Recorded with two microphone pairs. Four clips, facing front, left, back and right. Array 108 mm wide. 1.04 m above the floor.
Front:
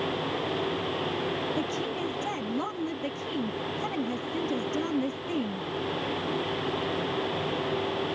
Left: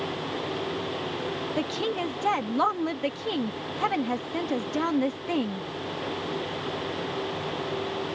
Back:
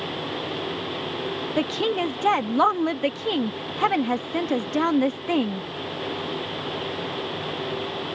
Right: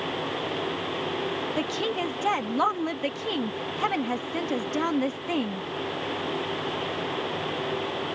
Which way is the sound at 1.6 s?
Straight behind.